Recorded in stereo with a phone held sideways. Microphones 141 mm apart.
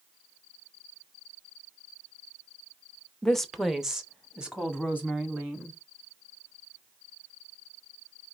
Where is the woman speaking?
5° left (ahead or behind), 0.5 m; by 5.8 s 10° right (ahead or behind), 2 m.